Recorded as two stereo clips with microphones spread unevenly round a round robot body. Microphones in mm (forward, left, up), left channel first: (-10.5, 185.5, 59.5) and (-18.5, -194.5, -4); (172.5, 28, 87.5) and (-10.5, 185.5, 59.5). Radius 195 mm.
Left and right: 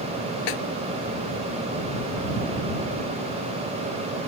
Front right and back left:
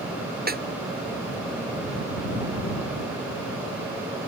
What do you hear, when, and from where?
0.5 s a snare drum: 90° left